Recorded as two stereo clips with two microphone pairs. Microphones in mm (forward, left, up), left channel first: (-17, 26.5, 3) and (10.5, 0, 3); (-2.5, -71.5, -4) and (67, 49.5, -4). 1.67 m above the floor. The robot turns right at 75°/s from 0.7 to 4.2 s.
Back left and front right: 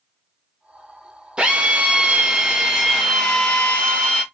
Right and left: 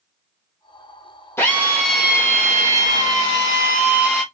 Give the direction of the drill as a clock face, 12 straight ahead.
2 o'clock.